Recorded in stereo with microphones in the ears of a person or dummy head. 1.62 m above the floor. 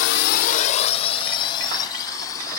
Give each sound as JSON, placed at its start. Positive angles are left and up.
{"t": 0.0, "sound": "a drone", "side_deg": 75}